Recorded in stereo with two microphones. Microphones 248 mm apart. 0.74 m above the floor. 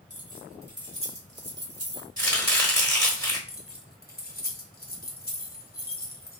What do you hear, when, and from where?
0.1 s keys jangling: 30° right (ahead or behind), 1.4 m; by 2.1 s 70° right (ahead or behind), 1.0 m
2.2 s chopping: 15° left (ahead or behind), 1.3 m
3.5 s keys jangling: 35° left (ahead or behind), 0.8 m